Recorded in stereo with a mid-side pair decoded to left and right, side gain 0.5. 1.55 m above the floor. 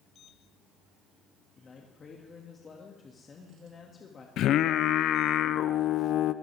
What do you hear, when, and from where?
1.6 s a man speaking: 35° left, 2.5 m
4.4 s singing: 65° left, 0.7 m